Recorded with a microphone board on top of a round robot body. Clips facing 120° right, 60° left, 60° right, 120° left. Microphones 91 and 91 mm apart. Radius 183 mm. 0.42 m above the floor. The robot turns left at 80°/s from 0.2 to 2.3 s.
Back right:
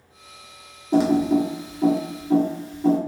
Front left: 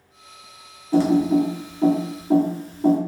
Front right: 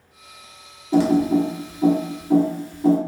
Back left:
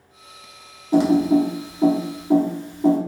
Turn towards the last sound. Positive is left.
turn(degrees=75)